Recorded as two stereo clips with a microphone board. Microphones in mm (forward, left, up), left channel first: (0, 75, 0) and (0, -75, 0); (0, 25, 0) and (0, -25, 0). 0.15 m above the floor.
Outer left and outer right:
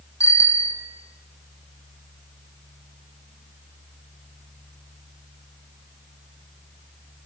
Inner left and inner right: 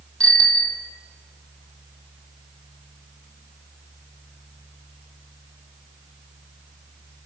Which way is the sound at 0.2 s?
20° left (ahead or behind).